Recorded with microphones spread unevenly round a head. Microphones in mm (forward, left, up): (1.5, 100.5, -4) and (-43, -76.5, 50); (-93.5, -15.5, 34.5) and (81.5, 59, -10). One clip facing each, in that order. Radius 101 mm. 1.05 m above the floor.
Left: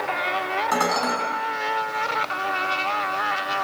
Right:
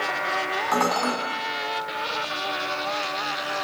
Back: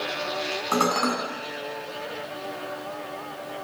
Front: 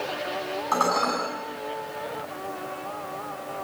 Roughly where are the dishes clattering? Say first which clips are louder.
Right 1 dB, back 2 dB; behind left.